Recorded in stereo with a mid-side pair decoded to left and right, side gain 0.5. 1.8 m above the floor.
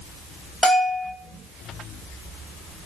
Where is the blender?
I don't hear a blender.